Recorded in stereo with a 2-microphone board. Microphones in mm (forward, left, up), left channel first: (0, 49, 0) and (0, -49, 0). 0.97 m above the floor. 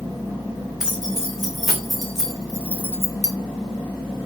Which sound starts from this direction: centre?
Keys jangling, at 0.8 s.